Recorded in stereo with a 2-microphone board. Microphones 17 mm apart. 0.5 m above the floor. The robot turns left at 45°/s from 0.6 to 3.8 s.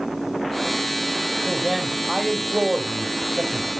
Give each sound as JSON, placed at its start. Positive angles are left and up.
{"t": 1.4, "sound": "a man speaking", "azimuth_deg": 15, "distance_m": 2.5}